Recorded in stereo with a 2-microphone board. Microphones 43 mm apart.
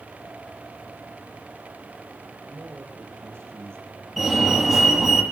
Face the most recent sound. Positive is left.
turn(degrees=0)  # may be behind; listen again after turning